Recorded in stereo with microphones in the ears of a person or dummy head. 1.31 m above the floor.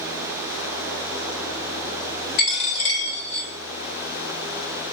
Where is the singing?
I don't hear singing.